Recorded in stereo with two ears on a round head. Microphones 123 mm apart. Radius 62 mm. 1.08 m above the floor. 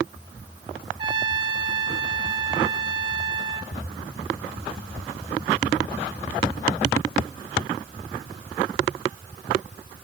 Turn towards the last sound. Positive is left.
turn(degrees=-35)  # may be behind; listen again after turning